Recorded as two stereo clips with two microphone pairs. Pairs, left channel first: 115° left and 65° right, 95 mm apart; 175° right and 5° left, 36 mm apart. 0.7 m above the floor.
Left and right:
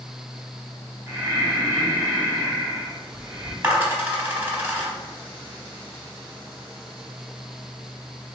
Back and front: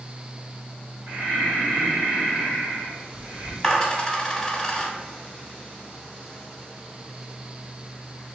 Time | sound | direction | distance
1.1 | breathing | 10° left | 1.9 m
3.6 | a dropped coin | 115° right | 0.7 m